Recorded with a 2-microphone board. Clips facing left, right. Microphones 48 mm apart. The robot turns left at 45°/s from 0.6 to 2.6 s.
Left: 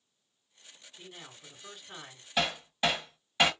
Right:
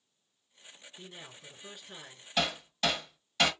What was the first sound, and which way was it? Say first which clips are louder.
A man speaking: even; 155° right.